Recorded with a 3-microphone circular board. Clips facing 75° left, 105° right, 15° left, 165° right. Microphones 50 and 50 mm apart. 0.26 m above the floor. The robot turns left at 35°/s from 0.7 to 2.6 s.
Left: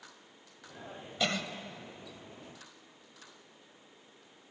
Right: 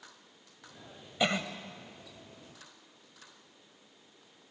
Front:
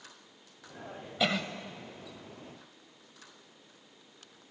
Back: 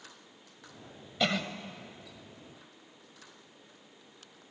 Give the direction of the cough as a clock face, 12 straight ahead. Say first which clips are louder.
Right 3 dB, even; 2 o'clock.